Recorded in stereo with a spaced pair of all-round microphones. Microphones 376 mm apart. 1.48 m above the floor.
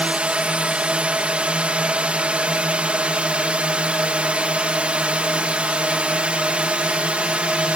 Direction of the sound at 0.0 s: 5° right (ahead or behind).